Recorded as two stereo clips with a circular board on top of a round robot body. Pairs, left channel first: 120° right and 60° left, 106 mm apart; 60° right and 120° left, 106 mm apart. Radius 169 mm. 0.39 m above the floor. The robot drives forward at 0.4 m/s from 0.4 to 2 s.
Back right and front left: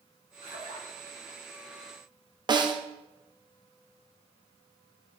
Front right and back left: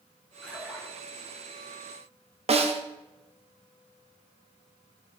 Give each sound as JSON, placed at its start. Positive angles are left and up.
{"t": 0.4, "sound": "a splash", "azimuth_deg": 45, "distance_m": 4.0}
{"t": 2.5, "sound": "a snare drum", "azimuth_deg": 105, "distance_m": 1.5}